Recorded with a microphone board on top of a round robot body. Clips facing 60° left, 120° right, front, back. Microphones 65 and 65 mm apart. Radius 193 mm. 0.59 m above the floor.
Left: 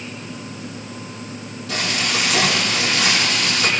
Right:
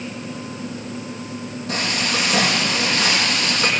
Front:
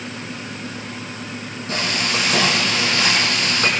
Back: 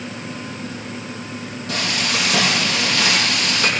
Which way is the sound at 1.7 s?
60° right.